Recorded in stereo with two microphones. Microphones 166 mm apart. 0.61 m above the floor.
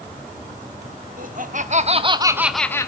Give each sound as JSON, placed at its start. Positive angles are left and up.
{"t": 1.2, "sound": "laughter", "side_deg": -55, "distance_m": 1.3}